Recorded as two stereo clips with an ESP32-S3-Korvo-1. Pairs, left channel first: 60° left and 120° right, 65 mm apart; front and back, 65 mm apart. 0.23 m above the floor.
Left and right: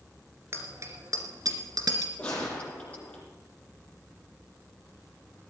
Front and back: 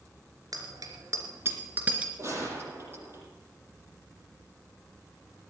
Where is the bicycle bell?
170° right, 2.5 m; by 2.1 s 105° right, 2.5 m.